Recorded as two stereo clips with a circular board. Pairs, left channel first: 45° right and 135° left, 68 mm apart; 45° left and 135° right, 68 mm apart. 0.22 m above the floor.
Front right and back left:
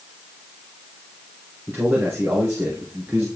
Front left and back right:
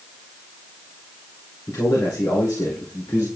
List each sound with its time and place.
1.7 s a man speaking: 85° left, 3.5 m